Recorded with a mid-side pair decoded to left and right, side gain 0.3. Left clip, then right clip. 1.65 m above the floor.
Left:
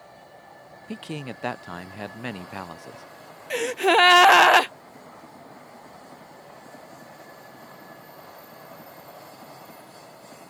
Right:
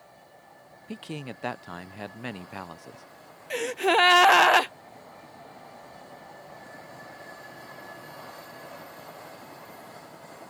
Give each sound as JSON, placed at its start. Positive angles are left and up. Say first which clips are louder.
{"t": 0.9, "sound": "a man speaking", "louder": "left 3 dB", "azimuth_deg": 30}
{"t": 3.5, "sound": "a gasp", "louder": "left 3 dB", "azimuth_deg": 35}